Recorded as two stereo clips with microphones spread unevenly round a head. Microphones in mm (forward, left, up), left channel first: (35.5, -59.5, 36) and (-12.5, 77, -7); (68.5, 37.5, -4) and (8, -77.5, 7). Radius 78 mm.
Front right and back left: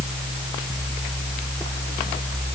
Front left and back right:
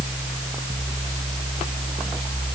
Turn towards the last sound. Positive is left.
No sound to turn to.